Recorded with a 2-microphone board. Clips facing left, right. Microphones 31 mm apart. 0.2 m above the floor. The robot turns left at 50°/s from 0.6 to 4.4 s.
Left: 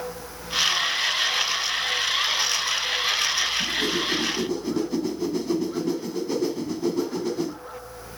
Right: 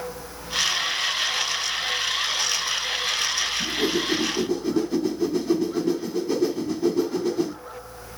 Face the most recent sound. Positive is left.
turn(degrees=180)